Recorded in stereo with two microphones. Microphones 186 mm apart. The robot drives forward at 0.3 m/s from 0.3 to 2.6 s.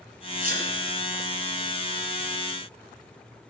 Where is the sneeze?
50° right (ahead or behind), 2.5 m.